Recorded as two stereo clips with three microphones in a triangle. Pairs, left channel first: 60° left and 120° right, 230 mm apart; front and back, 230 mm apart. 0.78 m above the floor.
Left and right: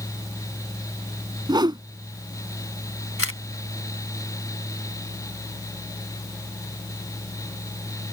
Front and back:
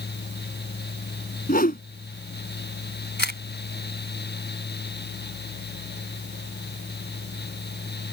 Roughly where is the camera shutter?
Ahead left.